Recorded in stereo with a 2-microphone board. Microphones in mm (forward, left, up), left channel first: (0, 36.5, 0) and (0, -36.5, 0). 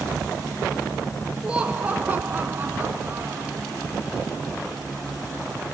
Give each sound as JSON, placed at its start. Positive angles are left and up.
{"t": 1.4, "sound": "laughter", "side_deg": -15, "distance_m": 1.5}